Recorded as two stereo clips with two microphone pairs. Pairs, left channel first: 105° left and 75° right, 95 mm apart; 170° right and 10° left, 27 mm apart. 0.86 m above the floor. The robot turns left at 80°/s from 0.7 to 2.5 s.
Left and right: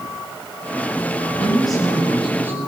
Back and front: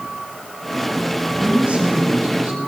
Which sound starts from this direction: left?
A woman speaking, at 1.4 s.